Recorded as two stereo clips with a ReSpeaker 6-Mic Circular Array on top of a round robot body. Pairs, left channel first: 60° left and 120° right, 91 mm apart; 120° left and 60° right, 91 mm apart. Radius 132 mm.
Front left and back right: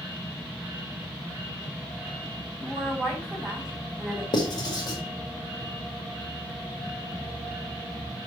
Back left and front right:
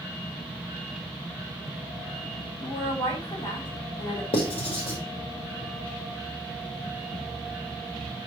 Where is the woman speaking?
155° left, 6 m.